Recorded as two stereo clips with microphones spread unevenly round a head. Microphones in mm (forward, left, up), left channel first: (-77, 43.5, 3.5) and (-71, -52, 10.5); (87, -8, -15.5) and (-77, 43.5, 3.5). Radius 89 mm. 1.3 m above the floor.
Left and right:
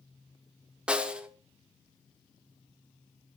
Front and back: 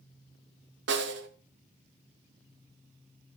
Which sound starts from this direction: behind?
A snare drum, at 0.9 s.